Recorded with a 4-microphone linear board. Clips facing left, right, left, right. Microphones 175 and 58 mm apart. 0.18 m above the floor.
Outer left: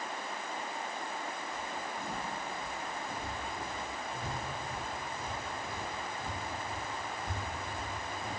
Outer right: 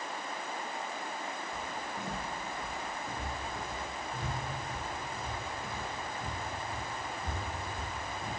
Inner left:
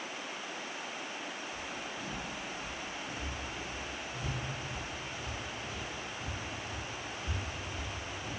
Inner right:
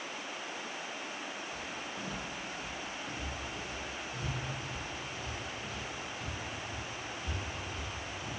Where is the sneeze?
No sneeze in this recording.